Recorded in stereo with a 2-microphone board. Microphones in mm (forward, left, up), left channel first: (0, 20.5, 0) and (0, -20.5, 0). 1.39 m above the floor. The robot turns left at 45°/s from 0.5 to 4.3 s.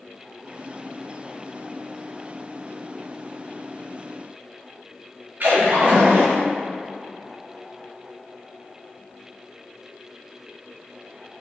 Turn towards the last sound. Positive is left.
turn(degrees=-45)  # may be behind; listen again after turning